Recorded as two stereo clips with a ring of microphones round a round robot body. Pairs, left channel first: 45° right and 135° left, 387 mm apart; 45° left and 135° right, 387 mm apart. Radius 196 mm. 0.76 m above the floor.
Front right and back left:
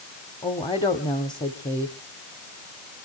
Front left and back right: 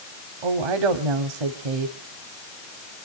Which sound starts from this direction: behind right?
A woman speaking, at 0.4 s.